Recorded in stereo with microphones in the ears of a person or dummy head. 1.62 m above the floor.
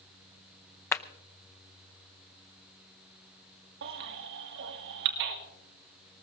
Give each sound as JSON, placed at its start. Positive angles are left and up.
{"t": 0.9, "sound": "a clap", "side_deg": 15, "distance_m": 0.6}
{"t": 3.8, "sound": "a baby crying", "side_deg": -60, "distance_m": 1.6}